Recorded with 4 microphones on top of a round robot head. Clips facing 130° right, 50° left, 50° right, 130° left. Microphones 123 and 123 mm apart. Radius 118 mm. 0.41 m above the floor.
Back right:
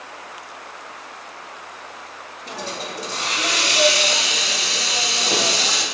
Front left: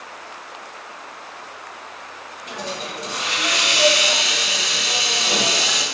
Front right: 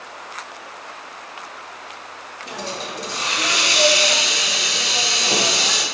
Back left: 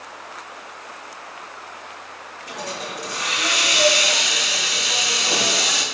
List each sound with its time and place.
2.5 s a hiss: 100° right, 1.0 m